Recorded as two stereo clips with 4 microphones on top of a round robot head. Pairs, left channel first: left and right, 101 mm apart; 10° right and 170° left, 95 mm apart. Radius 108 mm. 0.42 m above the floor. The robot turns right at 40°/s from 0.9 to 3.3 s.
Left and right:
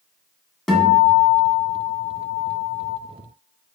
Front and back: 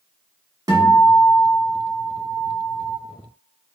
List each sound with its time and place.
0.7 s a guitar: 175° left, 1.1 m; by 3.0 s 100° right, 1.1 m